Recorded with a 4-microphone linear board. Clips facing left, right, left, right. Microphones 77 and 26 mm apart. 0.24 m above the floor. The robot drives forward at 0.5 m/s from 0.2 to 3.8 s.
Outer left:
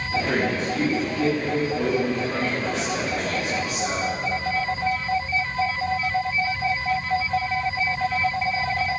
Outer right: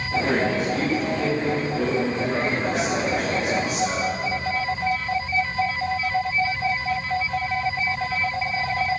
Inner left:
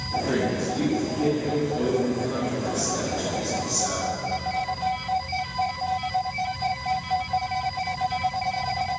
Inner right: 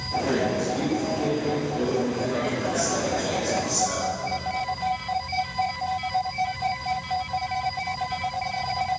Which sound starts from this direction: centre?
A man speaking, at 0.3 s.